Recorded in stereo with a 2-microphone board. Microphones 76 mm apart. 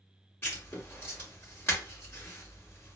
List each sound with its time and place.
0.4 s writing: 30° left (ahead or behind), 1.7 m